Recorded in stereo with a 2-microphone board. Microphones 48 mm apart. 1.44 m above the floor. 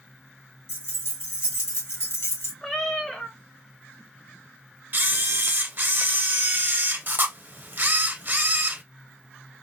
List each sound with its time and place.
0.7 s keys jangling: 55° left (ahead or behind), 1.4 m
2.6 s a cat meowing: 10° left (ahead or behind), 0.6 m
4.9 s a camera shutter: 40° right (ahead or behind), 0.8 m